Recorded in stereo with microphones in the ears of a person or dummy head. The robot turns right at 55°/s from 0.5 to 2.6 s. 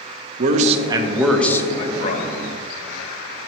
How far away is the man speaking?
About 0.6 m.